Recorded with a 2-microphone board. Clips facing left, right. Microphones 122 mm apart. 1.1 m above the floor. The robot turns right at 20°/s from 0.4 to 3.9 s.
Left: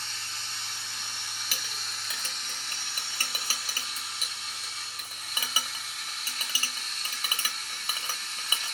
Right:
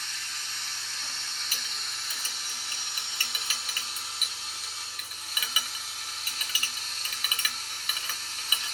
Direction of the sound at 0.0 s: 150° left.